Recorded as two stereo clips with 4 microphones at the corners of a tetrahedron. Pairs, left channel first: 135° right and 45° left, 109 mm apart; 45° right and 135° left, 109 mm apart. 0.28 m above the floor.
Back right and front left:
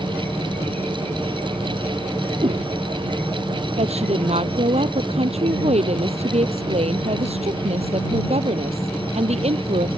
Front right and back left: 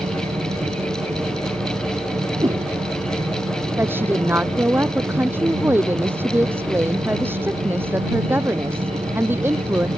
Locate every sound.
0.0 s an insect: 150° left
2.4 s a whoosh: 80° left
3.8 s a woman speaking: 65° left